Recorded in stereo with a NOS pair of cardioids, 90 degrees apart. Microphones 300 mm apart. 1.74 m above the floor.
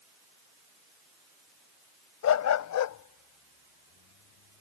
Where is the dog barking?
65° left; by 4.6 s 80° left.